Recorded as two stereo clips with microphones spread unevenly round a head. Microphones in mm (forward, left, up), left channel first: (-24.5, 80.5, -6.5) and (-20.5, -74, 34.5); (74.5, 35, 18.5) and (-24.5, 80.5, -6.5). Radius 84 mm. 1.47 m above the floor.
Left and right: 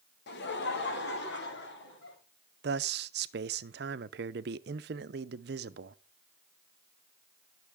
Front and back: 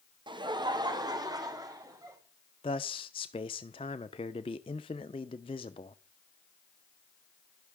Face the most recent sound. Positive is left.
turn(degrees=-75)